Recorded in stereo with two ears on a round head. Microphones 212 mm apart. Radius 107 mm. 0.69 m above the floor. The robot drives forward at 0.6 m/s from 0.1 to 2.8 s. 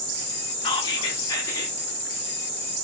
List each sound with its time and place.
0.6 s whispering: 20° left (ahead or behind), 0.9 m; by 1.8 s 15° left (ahead or behind), 1.3 m